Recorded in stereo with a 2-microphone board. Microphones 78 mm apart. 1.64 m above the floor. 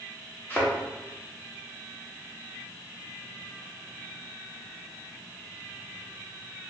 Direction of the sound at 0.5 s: 25° left (ahead or behind).